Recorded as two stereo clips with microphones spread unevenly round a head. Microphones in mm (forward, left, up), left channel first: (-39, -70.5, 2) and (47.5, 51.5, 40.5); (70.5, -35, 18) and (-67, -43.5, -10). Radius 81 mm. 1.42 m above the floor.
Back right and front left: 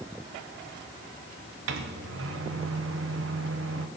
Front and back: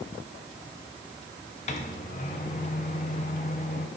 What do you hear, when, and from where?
1.7 s a microwave: 55° left, 0.8 m